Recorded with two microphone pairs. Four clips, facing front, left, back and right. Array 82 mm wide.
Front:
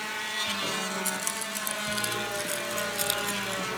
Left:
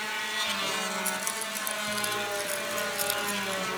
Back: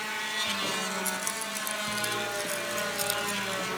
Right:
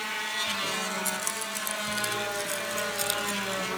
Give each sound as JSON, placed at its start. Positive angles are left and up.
{"t": 1.1, "sound": "keys jangling", "azimuth_deg": -40}